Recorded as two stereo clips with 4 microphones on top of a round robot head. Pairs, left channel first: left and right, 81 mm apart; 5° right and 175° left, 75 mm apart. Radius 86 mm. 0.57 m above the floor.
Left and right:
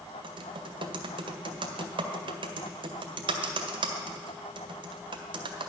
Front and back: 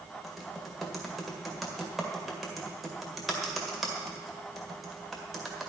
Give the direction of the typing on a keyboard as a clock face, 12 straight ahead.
3 o'clock.